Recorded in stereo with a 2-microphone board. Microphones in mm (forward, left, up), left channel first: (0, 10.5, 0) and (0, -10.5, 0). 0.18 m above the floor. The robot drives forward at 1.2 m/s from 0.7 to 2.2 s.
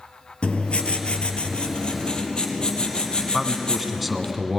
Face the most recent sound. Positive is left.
turn(degrees=-5)  # may be behind; listen again after turning